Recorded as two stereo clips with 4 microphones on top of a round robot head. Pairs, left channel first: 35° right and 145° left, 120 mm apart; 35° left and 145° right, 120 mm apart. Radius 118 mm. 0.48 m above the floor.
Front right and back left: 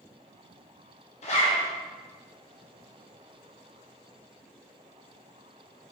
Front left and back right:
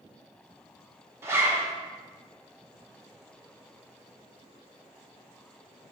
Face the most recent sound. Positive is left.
turn(degrees=-75)